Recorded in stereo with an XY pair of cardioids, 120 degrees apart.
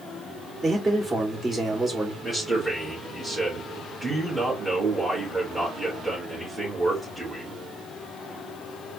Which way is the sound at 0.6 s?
20° right.